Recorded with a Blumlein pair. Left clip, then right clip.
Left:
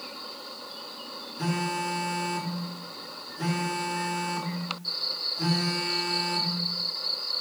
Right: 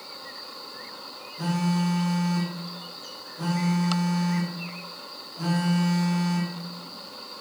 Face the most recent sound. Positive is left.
turn(degrees=0)